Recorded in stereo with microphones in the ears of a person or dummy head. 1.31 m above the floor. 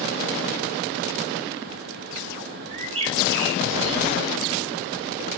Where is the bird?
40° right (ahead or behind), 4.5 m.